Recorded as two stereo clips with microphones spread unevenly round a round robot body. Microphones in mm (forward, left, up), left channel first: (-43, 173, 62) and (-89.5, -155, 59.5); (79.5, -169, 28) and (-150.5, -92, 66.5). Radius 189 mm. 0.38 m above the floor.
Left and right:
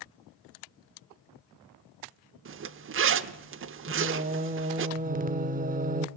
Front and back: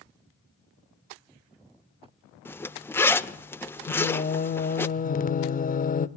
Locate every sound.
2.5 s a zipper: 80° right, 0.6 m
3.9 s singing: 45° right, 0.6 m